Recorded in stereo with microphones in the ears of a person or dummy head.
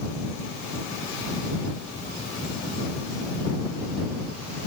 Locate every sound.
Only background noise.